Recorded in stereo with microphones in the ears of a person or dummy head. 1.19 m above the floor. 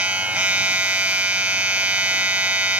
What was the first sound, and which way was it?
A machine running, 5° right (ahead or behind).